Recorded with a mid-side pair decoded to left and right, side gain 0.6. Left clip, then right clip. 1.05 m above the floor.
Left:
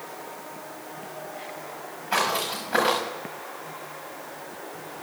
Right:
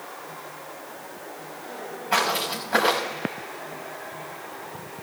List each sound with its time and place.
2.1 s footsteps: 15° right, 6 m